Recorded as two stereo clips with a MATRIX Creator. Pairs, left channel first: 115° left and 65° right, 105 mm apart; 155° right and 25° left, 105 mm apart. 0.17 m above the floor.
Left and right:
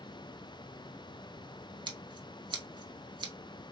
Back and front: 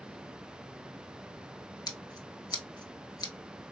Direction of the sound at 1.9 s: 110° right.